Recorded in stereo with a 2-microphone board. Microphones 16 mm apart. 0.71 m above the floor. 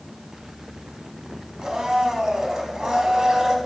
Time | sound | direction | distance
1.6 | a blender | 50° right (ahead or behind) | 0.7 m